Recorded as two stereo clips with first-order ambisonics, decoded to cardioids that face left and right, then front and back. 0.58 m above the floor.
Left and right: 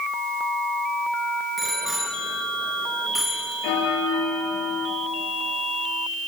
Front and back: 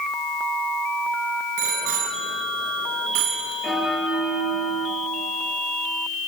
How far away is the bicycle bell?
About 5.5 m.